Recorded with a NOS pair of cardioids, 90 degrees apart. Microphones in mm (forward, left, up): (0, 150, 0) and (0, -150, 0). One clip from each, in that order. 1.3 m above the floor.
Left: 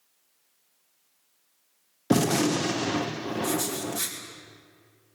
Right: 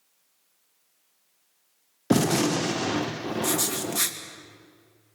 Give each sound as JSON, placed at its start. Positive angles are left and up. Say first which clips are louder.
{"t": 2.1, "sound": "a gunshot", "louder": "right 1 dB", "azimuth_deg": 0, "distance_m": 0.9}
{"t": 3.4, "sound": "writing", "louder": "right 2 dB", "azimuth_deg": -50, "distance_m": 2.5}